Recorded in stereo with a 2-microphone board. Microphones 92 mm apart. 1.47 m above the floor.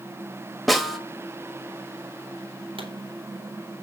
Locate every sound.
0.7 s a snare drum: centre (ahead or behind), 1.4 m
2.8 s a pop: 80° right, 3.5 m